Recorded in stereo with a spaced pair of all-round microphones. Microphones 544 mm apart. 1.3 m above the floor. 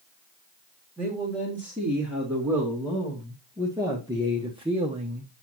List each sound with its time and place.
1.0 s a man speaking: centre (ahead or behind), 3 m; by 5.3 s 15° right (ahead or behind), 0.7 m